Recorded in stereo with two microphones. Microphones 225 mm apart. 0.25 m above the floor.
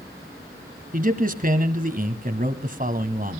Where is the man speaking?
40° right (ahead or behind), 1.7 m.